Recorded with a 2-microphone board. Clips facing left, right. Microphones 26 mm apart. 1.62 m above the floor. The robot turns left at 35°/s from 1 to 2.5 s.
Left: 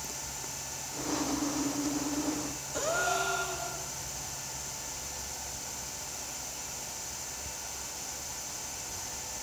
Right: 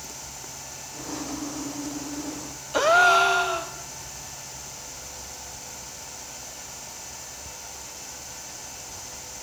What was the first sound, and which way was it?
A gasp, 60° right (ahead or behind).